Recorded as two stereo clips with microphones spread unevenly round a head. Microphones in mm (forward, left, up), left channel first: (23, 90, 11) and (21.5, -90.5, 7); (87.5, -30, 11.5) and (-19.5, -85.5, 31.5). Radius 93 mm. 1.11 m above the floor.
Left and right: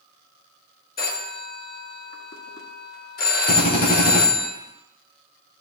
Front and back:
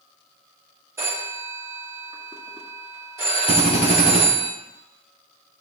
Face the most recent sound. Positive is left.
turn(degrees=50)